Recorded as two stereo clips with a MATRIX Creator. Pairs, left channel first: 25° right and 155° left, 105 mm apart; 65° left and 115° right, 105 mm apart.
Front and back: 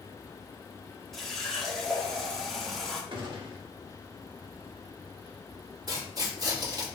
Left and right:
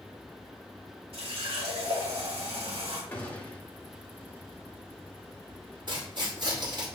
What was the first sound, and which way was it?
A running tap, 110° right.